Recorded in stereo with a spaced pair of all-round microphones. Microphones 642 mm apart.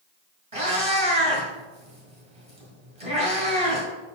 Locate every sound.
0.5 s a cat meowing: 55° right (ahead or behind), 2 m